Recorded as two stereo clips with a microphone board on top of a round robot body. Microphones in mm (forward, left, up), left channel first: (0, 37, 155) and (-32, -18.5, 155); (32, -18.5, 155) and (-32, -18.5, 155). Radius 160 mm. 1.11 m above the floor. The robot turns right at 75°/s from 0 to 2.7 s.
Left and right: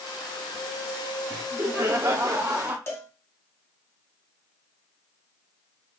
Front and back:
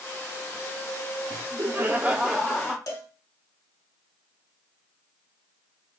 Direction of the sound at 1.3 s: 170° right.